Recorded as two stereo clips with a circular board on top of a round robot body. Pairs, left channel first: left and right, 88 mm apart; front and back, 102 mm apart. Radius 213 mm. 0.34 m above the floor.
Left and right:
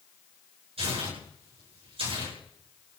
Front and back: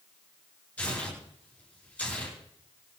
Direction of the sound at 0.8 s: 75° right.